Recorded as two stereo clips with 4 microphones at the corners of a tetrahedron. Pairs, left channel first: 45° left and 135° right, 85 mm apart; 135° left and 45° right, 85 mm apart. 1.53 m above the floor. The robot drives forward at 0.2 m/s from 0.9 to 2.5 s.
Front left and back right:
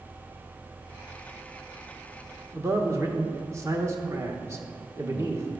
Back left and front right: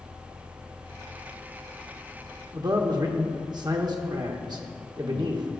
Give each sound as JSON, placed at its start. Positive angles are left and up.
{"t": 2.5, "sound": "a man speaking", "azimuth_deg": -80, "distance_m": 1.3}